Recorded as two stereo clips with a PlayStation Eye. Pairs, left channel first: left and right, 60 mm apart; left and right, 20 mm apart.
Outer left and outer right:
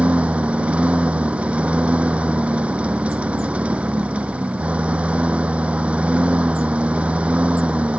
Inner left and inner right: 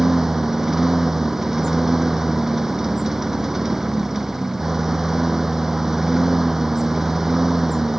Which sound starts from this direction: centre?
A lawn mower, at 0.0 s.